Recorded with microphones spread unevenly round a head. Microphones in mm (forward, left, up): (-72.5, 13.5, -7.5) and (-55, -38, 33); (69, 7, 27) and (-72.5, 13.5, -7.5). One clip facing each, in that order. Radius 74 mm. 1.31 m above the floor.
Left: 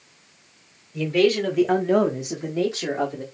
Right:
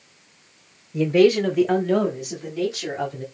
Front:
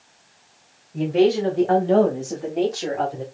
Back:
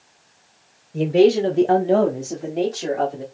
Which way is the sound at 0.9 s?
135° right.